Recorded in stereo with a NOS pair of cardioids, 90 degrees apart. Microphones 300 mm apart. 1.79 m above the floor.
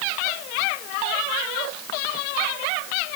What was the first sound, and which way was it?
Only background noise.